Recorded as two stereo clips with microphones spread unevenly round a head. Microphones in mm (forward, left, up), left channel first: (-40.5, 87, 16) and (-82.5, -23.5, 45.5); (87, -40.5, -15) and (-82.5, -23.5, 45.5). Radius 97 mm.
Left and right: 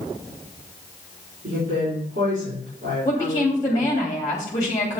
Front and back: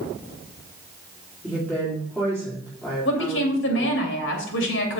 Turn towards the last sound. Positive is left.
turn(degrees=-5)